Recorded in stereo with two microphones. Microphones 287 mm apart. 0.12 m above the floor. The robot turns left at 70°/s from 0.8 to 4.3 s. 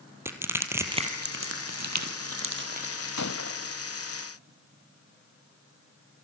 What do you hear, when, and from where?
0.2 s crushing: 10° right (ahead or behind), 3 m
3.2 s a gunshot: 75° left, 0.8 m; by 3.8 s 30° left, 0.8 m